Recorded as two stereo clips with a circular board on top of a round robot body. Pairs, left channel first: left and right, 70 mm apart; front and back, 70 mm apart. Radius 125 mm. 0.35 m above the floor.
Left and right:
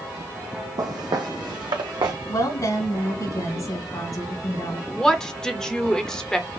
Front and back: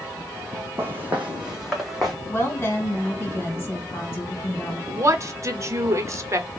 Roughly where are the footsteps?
Behind right.